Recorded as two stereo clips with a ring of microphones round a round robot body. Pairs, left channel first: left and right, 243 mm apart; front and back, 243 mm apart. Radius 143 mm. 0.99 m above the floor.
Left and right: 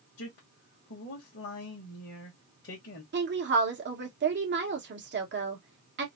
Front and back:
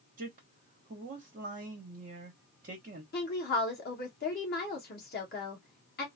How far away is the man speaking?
About 1.2 m.